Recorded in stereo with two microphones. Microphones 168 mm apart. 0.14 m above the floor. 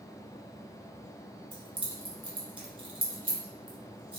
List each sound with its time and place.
1.5 s keys jangling: 30° right (ahead or behind), 1.1 m